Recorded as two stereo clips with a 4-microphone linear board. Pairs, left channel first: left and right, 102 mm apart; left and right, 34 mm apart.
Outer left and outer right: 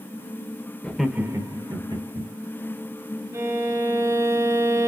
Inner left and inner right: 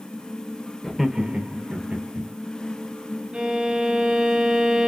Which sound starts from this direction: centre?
Laughter, at 0.8 s.